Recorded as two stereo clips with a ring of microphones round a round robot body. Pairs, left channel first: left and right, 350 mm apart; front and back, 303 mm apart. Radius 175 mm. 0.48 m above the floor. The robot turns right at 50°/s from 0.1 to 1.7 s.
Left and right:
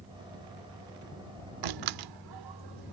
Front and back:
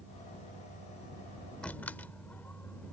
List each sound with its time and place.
1.6 s a door slam: 85° right